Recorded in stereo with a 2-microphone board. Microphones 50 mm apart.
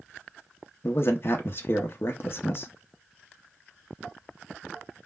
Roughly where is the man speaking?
Left.